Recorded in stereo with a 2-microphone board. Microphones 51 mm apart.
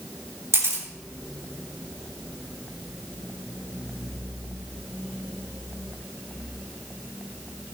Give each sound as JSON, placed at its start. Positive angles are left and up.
{"t": 0.5, "sound": "a camera shutter", "side_deg": -55, "distance_m": 3.0}